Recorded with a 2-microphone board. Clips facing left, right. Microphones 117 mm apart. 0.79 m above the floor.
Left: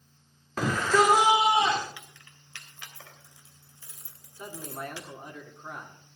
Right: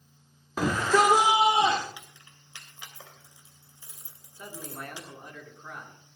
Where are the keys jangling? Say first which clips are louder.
Even; 15° right (ahead or behind), 2.5 m.